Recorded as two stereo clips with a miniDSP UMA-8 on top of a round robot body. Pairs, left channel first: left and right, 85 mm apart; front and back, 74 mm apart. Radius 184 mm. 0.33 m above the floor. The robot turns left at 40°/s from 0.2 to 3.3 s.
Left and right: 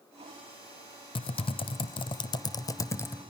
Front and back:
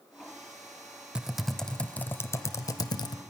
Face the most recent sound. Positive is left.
turn(degrees=15)